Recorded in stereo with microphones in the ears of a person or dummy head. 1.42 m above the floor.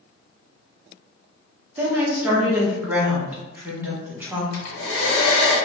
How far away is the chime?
No chime in this recording.